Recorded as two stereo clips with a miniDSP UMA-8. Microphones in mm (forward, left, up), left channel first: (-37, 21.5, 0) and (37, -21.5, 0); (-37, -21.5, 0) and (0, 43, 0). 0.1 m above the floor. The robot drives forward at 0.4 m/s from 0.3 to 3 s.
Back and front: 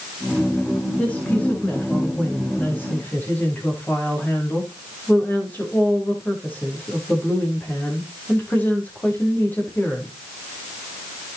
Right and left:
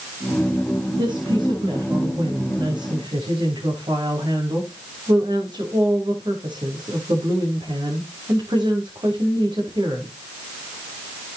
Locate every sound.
1.0 s a woman speaking: 75° left, 7 m; by 10.1 s 80° left, 7 m